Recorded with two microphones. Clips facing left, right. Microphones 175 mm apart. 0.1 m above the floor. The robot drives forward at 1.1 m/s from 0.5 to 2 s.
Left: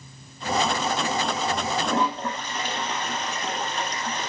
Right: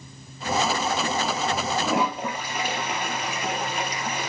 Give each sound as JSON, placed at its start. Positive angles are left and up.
{"t": 1.9, "sound": "a toilet flushing", "side_deg": -10, "distance_m": 2.0}